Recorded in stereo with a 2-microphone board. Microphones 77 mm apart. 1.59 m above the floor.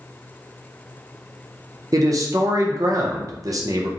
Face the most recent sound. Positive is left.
turn(degrees=-50)  # may be behind; listen again after turning